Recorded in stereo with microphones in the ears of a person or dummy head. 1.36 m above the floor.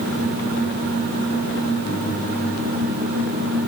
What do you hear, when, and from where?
Only background noise.